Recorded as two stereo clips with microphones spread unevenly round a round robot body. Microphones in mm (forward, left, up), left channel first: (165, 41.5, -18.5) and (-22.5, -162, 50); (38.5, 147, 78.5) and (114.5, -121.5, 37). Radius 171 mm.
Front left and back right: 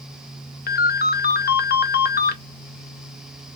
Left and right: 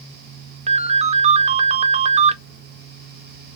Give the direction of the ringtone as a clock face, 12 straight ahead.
12 o'clock.